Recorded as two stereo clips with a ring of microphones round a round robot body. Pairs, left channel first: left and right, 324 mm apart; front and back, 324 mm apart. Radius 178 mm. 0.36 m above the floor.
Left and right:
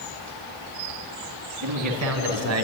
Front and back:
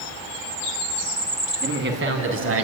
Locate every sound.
1.6 s a man speaking: 120° right, 4.5 m; by 2.6 s 130° right, 3 m